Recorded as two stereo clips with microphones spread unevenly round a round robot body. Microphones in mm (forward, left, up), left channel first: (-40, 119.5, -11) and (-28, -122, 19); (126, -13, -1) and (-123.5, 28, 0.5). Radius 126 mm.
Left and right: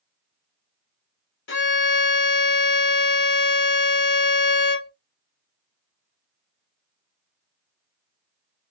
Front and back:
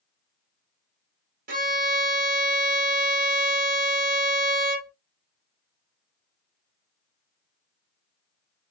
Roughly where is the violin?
Behind left.